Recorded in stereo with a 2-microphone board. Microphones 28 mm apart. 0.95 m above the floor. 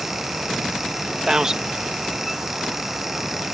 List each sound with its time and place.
1.3 s a man speaking: 25° right (ahead or behind)